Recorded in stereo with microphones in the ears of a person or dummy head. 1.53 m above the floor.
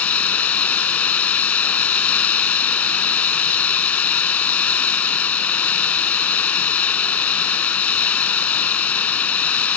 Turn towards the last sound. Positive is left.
turn(degrees=10)  # may be behind; listen again after turning